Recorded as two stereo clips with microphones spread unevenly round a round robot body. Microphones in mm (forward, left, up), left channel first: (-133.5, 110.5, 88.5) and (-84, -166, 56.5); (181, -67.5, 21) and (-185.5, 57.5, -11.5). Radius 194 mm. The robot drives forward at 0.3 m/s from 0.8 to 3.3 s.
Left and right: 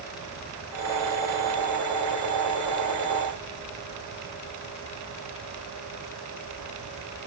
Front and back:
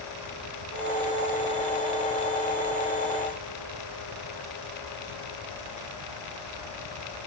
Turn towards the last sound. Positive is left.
No sound to turn to.